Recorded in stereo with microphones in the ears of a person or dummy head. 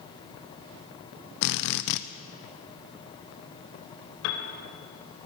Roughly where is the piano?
Left.